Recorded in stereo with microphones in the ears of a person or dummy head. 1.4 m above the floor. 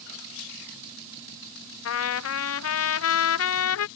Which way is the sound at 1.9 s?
75° left (ahead or behind).